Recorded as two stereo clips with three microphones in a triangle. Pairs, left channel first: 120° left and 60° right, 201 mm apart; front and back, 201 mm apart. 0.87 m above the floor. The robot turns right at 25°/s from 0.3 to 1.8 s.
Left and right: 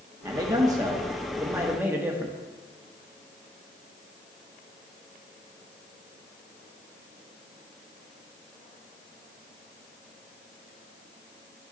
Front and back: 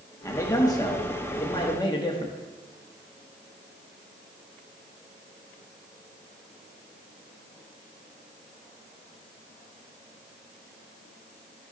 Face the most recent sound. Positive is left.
turn(degrees=0)